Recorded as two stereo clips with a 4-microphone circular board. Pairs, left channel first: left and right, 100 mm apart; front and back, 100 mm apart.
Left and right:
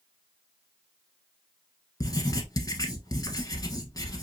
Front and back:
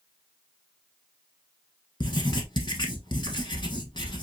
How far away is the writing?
About 1.1 m.